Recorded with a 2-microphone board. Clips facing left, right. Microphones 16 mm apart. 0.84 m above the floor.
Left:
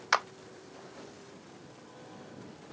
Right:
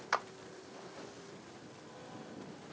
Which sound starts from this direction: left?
A clap, at 0.1 s.